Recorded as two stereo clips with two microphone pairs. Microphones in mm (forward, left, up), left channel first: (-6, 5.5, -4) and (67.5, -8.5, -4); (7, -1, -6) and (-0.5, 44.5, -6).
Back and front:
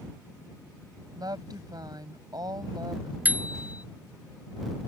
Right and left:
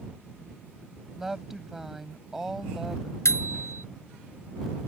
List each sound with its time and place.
1.2 s a woman speaking: 15° left
3.2 s a bicycle bell: 75° right